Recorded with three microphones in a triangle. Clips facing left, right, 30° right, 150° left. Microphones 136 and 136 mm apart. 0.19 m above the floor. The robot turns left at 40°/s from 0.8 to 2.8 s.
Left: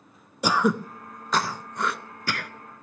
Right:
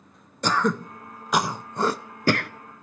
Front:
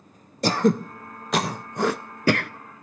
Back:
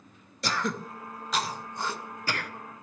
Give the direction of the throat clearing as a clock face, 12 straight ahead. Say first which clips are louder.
Left 1 dB, front 11 dB; 12 o'clock.